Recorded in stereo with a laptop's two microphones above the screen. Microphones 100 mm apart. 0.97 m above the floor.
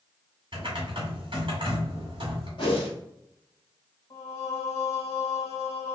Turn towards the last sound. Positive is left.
turn(degrees=35)  # may be behind; listen again after turning